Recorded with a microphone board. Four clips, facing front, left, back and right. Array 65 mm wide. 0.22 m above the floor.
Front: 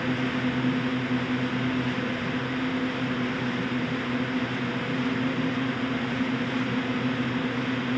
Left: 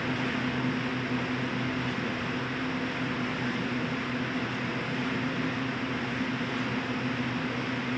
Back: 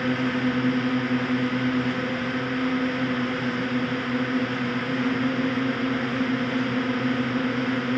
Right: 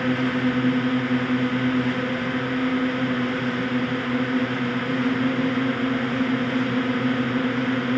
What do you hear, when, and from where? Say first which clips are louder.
0.0 s a drone: right 8 dB, back 3 dB; 125° right